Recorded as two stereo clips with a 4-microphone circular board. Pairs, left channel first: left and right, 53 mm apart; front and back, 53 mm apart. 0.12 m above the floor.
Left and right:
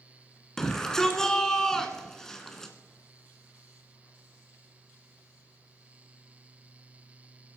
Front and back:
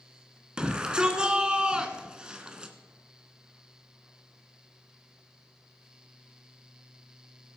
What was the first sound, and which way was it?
A shout, 150° left.